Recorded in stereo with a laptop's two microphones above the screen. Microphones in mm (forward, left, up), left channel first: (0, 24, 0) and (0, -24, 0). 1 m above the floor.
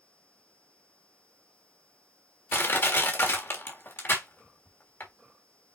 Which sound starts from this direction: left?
Crushing, at 2.5 s.